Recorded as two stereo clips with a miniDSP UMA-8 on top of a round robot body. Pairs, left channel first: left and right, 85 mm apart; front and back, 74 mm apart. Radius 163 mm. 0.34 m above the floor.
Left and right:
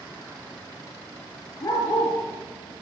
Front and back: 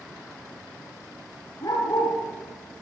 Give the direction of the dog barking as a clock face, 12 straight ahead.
11 o'clock.